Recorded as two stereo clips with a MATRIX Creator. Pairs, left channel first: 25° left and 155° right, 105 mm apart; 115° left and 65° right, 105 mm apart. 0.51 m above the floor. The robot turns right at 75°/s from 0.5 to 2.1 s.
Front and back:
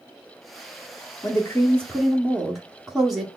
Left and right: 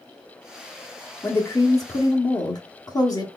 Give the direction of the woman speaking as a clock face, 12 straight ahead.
10 o'clock.